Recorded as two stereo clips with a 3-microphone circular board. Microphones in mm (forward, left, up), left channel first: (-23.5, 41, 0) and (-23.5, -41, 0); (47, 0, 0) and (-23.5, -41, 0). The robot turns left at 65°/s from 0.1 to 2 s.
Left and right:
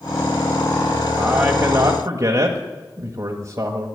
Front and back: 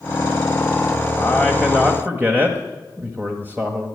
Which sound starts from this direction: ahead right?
A man speaking, at 1.2 s.